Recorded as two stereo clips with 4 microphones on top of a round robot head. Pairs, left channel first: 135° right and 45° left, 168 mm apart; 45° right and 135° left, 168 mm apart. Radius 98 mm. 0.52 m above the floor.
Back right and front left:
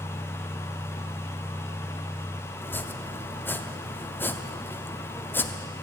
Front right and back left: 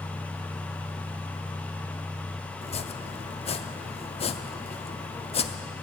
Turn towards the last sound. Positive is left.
turn(degrees=-65)